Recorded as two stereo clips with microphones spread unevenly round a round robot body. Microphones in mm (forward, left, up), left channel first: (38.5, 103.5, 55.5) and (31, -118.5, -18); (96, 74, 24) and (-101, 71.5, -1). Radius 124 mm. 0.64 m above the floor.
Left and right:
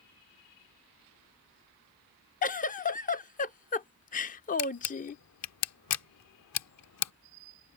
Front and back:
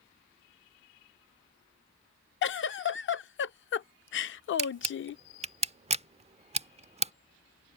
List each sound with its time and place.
2.4 s a giggle: 35° left
4.6 s a camera shutter: 120° left